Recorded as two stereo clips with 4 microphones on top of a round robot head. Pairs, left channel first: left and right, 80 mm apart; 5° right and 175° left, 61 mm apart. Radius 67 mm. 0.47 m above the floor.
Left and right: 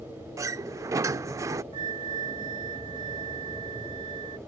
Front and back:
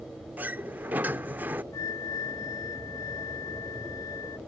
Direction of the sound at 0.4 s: 130° right.